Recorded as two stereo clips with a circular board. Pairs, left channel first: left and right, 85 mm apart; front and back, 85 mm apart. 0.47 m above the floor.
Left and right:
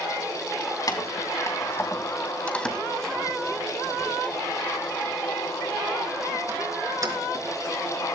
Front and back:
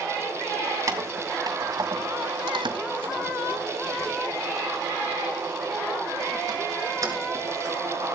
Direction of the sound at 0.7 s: 130° left.